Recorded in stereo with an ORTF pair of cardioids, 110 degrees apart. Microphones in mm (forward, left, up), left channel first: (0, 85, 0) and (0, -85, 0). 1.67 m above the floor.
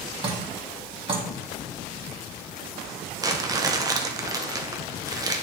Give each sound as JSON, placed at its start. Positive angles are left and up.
{"t": 0.2, "sound": "dripping", "azimuth_deg": -35, "distance_m": 1.6}
{"t": 3.2, "sound": "crumpling", "azimuth_deg": -20, "distance_m": 0.8}